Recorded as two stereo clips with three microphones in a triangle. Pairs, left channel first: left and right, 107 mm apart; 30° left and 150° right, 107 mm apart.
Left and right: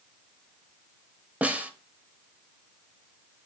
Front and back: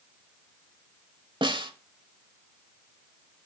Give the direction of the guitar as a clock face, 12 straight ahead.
No guitar in this recording.